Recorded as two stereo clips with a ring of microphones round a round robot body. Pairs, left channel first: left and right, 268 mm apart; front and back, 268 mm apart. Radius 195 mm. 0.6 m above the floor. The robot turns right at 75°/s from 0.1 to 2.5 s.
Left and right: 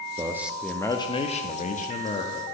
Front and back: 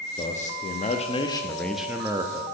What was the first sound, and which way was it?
A man speaking, 30° right.